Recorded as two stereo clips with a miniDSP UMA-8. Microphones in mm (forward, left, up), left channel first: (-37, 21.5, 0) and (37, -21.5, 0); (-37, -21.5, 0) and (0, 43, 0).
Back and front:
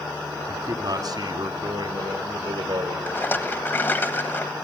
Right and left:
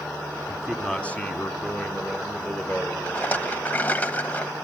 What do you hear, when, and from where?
0.5 s a man speaking: 30° right, 1.2 m; by 3.0 s 60° right, 4.5 m
3.1 s a rattle: 165° right, 1.1 m